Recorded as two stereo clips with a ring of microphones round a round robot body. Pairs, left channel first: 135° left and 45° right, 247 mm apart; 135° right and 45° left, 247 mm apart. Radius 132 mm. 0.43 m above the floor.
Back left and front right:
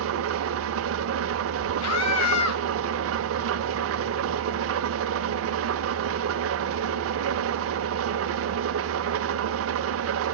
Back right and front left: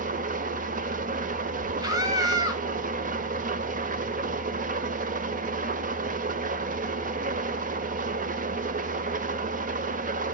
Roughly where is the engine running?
Ahead.